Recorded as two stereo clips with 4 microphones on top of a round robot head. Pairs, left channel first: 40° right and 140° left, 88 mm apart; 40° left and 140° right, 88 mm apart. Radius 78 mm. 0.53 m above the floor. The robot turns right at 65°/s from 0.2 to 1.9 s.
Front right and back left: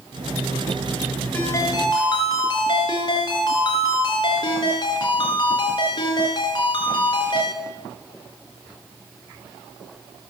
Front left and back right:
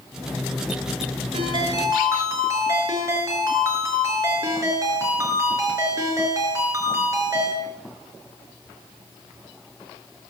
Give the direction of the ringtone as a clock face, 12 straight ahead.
4 o'clock.